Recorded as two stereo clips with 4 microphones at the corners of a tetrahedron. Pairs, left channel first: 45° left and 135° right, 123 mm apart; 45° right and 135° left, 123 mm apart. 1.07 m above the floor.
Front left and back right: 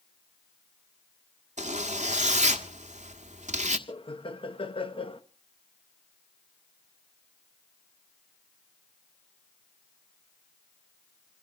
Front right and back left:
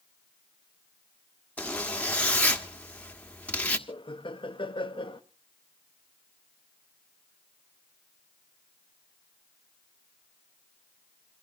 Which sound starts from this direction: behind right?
A zipper, at 1.6 s.